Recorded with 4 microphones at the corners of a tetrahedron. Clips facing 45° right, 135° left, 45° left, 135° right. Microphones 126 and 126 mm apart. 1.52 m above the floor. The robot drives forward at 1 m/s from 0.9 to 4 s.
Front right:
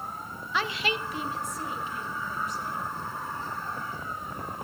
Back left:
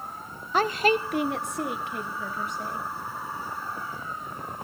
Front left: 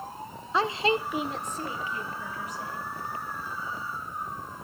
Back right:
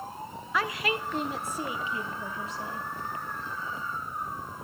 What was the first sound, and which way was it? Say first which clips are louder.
A woman speaking: back left 8 dB, front left 4 dB; 100° left.